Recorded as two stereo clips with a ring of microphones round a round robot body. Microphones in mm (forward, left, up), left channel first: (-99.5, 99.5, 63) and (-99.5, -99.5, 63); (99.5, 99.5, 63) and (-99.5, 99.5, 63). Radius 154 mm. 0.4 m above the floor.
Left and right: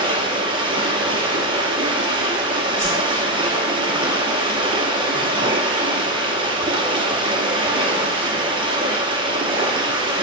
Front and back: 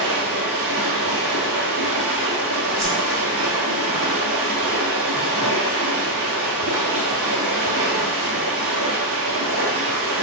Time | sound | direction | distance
0.0 | running water | 155° right | 1.0 m
2.8 | a whoosh | 110° left | 1.8 m